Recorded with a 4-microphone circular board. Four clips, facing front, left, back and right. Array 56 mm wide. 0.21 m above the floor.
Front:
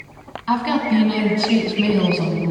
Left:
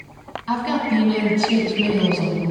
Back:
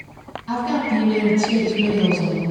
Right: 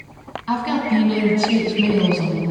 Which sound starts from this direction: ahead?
A woman speaking, at 0.5 s.